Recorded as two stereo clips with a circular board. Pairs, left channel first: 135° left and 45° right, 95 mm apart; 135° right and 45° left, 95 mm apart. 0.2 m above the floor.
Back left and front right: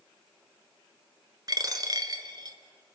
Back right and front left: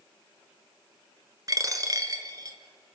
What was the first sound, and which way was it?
A dropped coin, 5° right.